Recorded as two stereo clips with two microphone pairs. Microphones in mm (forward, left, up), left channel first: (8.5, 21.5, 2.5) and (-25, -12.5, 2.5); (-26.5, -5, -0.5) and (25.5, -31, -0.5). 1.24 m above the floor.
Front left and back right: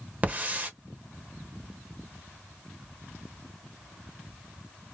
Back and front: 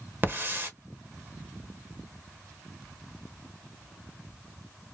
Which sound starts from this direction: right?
A hiss, at 0.2 s.